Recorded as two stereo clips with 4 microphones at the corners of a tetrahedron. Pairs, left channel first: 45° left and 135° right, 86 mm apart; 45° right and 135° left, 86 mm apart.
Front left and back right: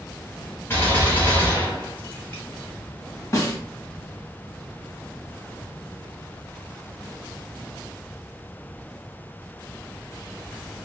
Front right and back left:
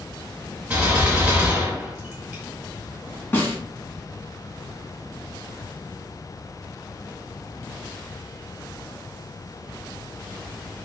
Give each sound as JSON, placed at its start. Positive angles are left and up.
{"t": 0.7, "sound": "a gunshot", "azimuth_deg": 75, "distance_m": 1.8}
{"t": 3.3, "sound": "a snare drum", "azimuth_deg": 10, "distance_m": 1.0}